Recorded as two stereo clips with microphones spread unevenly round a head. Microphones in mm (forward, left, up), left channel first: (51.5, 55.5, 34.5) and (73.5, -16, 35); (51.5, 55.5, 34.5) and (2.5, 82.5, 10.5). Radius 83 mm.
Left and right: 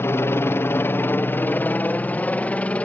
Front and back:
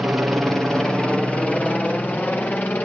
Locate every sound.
0.0 s a helicopter: 120° left; by 2.9 s 40° left